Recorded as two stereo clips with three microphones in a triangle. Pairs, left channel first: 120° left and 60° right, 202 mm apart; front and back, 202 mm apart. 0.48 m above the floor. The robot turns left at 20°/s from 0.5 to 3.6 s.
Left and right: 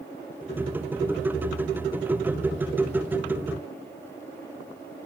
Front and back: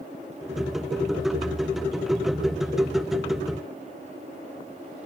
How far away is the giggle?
No giggle in this recording.